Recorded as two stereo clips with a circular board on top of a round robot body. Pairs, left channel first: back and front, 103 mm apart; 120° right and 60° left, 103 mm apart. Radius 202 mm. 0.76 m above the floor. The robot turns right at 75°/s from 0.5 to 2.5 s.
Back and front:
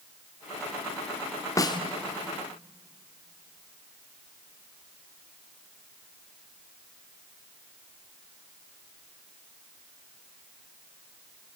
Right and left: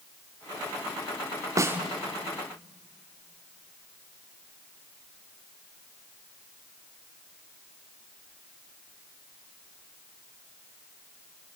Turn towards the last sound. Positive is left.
turn(degrees=-170)